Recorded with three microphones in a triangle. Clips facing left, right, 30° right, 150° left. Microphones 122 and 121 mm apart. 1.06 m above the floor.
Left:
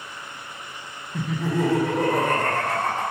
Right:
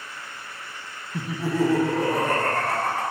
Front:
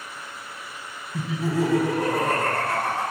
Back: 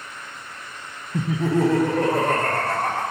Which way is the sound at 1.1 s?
170° right.